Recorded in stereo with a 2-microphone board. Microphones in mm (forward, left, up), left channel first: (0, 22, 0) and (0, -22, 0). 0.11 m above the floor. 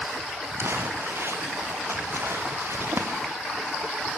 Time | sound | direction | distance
0.6 | crumpling | 65° right (ahead or behind) | 4 m